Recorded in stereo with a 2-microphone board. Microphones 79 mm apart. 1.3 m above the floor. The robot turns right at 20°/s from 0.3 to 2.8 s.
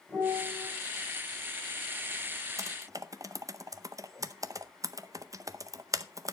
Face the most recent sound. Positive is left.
turn(degrees=-45)  # may be behind; listen again after turning